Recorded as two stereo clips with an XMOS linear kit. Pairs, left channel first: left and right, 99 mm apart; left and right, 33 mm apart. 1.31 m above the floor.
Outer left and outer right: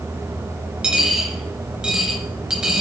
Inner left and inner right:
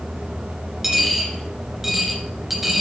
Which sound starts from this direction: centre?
A dropped coin, at 0.8 s.